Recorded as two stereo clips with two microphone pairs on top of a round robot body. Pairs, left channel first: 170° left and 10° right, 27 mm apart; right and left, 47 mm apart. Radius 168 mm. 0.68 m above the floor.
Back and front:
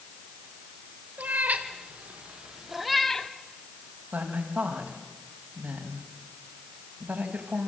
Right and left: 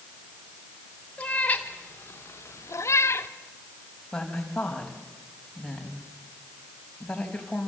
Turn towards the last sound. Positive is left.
turn(degrees=-10)